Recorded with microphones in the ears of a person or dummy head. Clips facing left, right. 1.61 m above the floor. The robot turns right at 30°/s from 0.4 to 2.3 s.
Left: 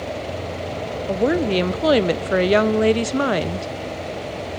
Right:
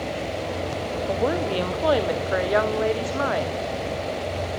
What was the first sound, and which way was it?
A woman speaking, 40° left.